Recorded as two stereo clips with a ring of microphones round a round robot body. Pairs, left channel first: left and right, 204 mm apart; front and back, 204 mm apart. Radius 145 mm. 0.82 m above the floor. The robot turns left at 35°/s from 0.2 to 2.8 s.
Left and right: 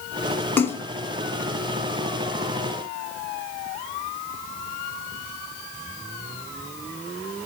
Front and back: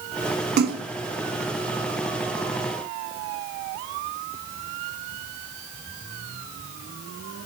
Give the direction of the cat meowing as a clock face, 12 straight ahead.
No cat meowing in this recording.